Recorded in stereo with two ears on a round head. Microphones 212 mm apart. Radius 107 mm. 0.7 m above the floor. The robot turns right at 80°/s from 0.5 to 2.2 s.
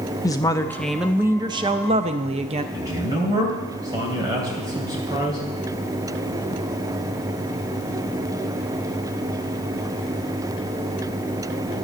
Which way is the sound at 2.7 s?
15° right (ahead or behind).